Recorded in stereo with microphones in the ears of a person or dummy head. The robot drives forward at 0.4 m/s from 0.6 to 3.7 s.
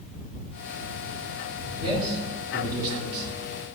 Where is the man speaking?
35° right (ahead or behind), 1.4 m; by 3.3 s 55° right (ahead or behind), 1.0 m.